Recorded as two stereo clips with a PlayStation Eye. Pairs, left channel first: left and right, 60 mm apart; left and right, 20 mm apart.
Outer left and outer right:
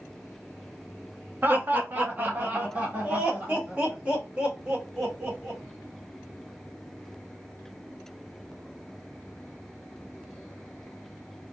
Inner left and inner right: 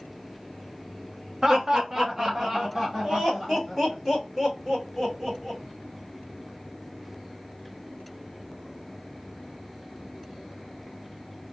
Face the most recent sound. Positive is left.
turn(degrees=-15)  # may be behind; listen again after turning